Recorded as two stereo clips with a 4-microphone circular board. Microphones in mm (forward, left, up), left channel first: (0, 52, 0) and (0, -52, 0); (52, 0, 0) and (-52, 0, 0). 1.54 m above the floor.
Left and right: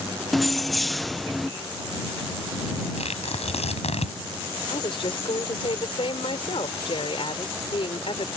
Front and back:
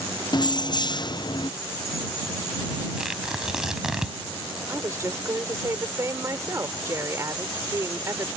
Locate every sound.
0.3 s keys jangling: straight ahead
3.0 s tearing paper: 95° left
4.7 s a woman speaking: 120° left